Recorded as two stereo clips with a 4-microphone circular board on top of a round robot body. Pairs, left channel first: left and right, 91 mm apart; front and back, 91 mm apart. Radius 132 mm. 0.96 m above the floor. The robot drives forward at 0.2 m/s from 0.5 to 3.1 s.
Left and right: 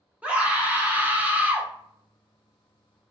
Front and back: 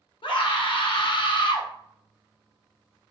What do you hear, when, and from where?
0.2 s a scream: 15° right, 1.0 m; by 1.7 s 20° right, 0.8 m